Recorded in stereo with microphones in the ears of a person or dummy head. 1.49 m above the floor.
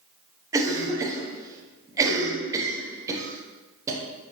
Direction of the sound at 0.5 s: 15° right (ahead or behind).